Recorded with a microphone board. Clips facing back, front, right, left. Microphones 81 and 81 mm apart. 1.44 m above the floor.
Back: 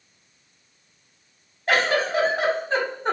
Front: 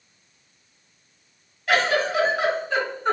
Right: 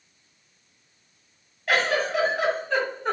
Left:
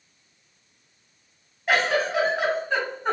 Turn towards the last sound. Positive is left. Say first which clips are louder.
# even, left 1 dB
turn(degrees=155)